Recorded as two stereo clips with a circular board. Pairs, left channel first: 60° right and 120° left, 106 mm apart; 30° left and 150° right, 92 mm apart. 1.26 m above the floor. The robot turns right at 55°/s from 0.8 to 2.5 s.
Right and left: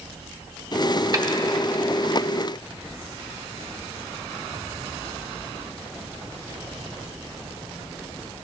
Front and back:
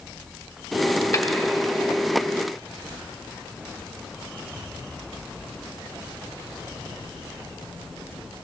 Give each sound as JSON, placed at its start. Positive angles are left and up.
{"t": 1.1, "sound": "a snare drum", "azimuth_deg": 75, "distance_m": 0.7}